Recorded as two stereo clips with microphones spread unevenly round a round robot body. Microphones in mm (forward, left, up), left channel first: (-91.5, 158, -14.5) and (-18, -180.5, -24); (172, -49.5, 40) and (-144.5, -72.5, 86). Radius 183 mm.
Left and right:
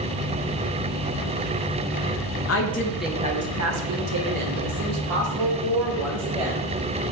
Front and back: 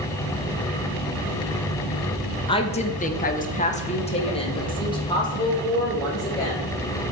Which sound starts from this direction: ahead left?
A woman speaking, at 2.5 s.